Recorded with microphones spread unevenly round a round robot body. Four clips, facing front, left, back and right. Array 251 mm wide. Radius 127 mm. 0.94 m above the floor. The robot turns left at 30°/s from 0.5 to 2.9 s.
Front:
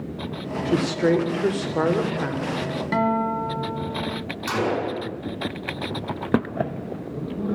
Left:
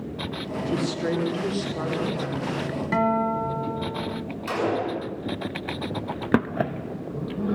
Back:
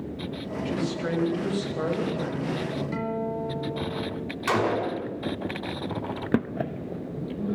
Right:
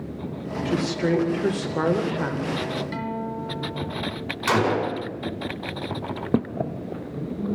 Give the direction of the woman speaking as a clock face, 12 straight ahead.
12 o'clock.